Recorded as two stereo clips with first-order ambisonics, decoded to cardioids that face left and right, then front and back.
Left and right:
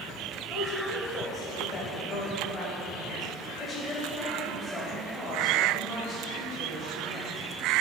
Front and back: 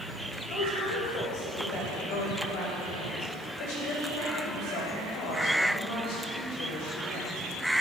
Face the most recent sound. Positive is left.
turn(degrees=20)